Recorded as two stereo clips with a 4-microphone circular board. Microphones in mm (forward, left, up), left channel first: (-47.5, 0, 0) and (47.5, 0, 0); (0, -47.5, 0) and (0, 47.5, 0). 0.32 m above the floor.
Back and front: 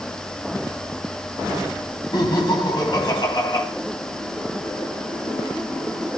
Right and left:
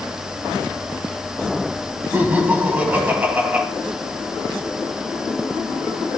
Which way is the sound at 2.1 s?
160° left.